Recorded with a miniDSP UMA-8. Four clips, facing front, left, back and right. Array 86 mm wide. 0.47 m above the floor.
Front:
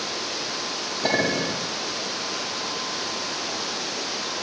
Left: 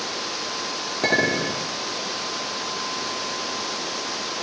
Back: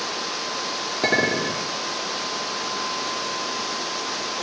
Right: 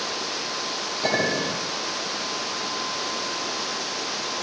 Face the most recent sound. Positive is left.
turn(degrees=140)